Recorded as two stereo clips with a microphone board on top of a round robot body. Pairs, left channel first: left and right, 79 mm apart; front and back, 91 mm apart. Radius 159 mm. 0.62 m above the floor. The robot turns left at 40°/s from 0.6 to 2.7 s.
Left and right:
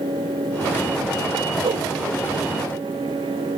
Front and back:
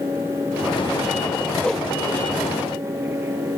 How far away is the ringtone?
I don't hear a ringtone.